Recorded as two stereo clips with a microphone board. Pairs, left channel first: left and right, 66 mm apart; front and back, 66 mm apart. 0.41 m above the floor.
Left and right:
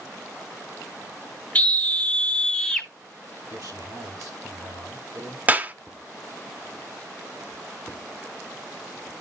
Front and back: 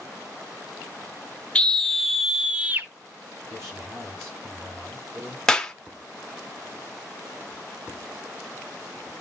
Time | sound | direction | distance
1.6 | a scream | 50° left | 1.0 m
3.5 | a man speaking | 130° right | 8.5 m
5.5 | a clap | 65° right | 0.7 m